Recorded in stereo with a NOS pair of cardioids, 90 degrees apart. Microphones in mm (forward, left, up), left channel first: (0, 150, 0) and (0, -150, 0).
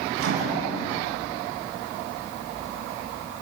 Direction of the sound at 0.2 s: 50° right.